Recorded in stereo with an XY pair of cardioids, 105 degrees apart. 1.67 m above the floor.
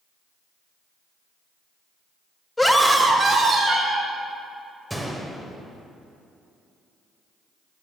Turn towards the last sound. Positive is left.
turn(degrees=-5)